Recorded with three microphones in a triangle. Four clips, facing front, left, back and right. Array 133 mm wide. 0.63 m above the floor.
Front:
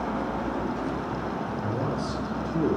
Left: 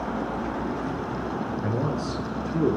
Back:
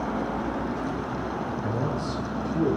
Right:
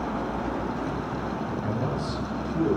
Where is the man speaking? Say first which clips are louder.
Left 2 dB, even; 60° left, 8.5 m.